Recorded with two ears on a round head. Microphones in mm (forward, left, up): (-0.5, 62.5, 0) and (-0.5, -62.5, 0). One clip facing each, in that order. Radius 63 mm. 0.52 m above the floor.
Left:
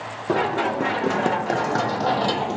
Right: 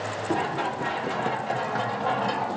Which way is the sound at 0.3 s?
70° left (ahead or behind).